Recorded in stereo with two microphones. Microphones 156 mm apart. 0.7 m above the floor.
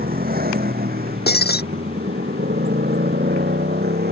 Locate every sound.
0.0 s a motorcycle: 65° right (ahead or behind); by 4.1 s 75° right (ahead or behind)
1.3 s breaking glass: 75° left (ahead or behind)